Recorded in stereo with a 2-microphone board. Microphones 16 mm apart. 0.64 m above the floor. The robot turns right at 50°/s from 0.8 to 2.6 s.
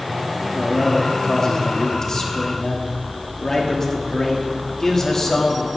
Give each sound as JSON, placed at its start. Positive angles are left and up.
{"t": 0.5, "sound": "a man speaking", "azimuth_deg": 35, "distance_m": 1.4}